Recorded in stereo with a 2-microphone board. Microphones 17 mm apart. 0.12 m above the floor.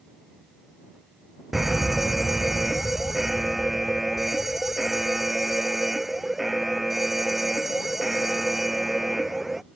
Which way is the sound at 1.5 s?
10° right (ahead or behind).